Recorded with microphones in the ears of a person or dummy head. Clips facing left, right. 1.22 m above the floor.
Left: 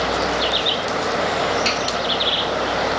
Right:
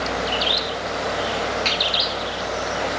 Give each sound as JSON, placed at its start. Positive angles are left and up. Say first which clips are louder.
{"t": 1.6, "sound": "a finger snap", "louder": "left 3 dB", "side_deg": -25, "distance_m": 2.5}